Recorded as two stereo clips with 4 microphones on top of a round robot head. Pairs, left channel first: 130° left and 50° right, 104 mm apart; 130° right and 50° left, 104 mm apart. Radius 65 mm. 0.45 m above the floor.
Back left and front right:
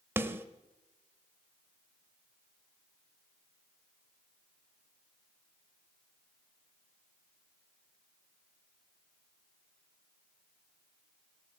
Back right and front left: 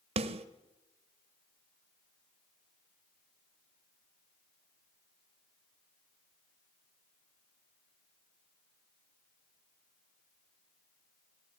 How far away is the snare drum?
About 0.8 m.